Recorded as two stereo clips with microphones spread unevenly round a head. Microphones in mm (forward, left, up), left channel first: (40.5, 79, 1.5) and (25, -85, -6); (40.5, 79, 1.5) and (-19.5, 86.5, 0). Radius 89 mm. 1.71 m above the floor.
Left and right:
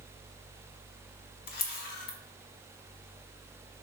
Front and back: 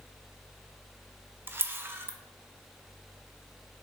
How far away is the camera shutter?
About 0.7 m.